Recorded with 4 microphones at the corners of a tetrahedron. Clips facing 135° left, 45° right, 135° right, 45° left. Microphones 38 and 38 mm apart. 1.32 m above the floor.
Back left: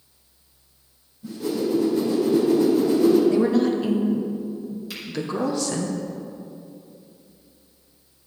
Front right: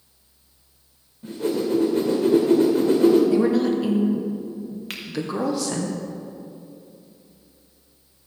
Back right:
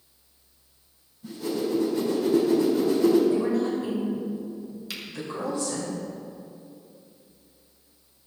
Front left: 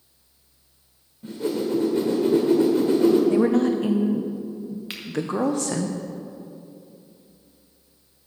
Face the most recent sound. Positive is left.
turn(degrees=-10)